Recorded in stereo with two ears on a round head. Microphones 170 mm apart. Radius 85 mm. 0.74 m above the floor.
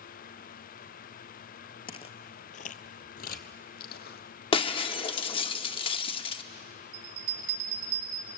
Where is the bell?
75° right (ahead or behind), 5 m.